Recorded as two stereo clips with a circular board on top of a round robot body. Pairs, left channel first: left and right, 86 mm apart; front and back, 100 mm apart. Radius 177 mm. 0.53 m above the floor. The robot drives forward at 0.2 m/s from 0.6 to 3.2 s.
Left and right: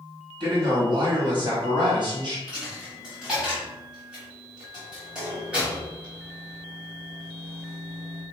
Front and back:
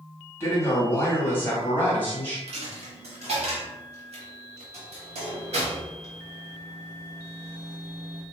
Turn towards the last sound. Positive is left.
turn(degrees=-170)